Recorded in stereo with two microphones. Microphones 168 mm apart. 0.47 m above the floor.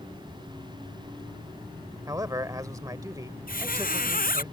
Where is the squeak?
60° left (ahead or behind).